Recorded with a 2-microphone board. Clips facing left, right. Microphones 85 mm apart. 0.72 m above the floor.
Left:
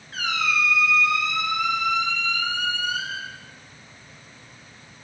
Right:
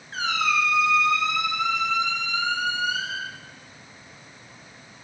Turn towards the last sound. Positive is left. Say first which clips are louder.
# right 1 dB
turn(degrees=-30)  # may be behind; listen again after turning